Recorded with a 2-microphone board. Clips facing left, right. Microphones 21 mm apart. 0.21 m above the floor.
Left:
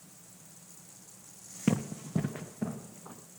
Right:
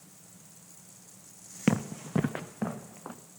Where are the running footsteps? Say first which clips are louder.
Right 2 dB; 35° right (ahead or behind), 0.5 m; by 3.2 s 80° right, 1.4 m.